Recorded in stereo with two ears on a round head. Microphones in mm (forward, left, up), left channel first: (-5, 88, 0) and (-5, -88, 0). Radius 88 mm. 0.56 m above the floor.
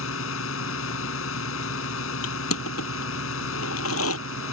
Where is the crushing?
85° left.